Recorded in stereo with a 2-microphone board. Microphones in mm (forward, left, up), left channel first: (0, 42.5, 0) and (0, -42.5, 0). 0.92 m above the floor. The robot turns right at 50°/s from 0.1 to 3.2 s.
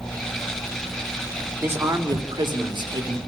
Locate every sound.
1.6 s a man speaking: 150° right, 4 m; by 3.2 s 70° right, 4 m